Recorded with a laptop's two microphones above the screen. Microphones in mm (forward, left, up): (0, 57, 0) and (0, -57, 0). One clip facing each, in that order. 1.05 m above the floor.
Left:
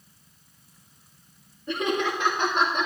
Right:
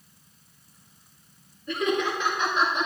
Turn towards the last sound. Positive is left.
turn(degrees=55)  # may be behind; listen again after turning